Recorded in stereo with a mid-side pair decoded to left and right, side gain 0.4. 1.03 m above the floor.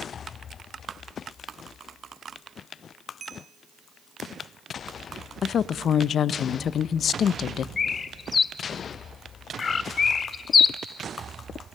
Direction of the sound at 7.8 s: 40° left.